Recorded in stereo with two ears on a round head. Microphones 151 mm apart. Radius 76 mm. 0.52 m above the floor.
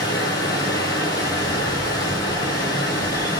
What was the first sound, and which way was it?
Running water, 25° left (ahead or behind).